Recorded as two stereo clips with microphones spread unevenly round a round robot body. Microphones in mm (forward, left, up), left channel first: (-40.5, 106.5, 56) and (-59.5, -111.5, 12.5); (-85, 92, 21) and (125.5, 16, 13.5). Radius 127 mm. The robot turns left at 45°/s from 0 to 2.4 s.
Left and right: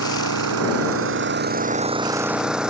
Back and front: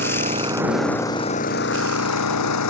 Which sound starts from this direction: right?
An engine running, at 0.0 s.